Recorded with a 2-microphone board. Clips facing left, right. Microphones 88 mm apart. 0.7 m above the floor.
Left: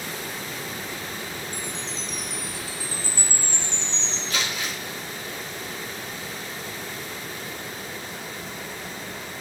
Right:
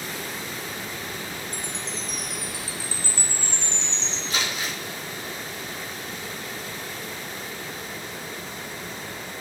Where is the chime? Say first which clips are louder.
Even; 80° right, 1.4 m.